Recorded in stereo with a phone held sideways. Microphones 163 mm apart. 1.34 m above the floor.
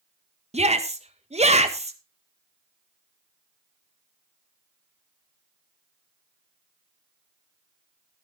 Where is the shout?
40° right (ahead or behind), 1.7 m.